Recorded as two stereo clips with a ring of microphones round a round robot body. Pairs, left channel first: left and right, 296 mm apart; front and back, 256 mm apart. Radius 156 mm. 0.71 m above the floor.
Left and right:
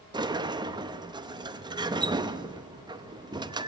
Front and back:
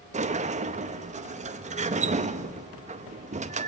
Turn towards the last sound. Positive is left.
turn(degrees=-150)